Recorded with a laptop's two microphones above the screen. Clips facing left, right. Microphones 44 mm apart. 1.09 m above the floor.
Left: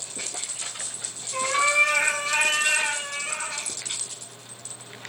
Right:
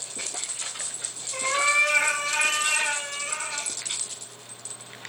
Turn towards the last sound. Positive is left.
turn(degrees=10)  # may be behind; listen again after turning